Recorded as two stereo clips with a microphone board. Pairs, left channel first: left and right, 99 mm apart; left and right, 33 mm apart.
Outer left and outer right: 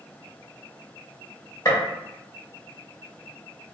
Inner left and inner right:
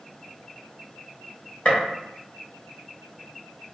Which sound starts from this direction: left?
A gunshot, at 1.6 s.